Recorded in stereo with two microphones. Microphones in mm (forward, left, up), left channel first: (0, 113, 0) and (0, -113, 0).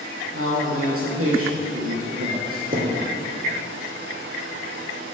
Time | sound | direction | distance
0.3 | a man speaking | 75° right (ahead or behind) | 4 m
2.7 | a thud | 40° right (ahead or behind) | 2.0 m